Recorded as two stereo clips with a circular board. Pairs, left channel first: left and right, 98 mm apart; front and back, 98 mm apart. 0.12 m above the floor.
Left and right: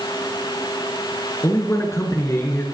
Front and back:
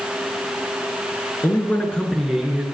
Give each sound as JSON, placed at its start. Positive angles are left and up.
{"t": 1.4, "sound": "a man speaking", "azimuth_deg": 45, "distance_m": 1.7}